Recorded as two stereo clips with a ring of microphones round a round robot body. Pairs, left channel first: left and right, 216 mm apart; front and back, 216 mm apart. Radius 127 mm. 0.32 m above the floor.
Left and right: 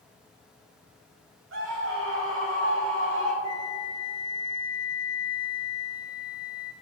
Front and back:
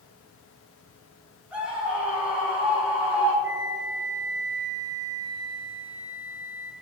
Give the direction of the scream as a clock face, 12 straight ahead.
3 o'clock.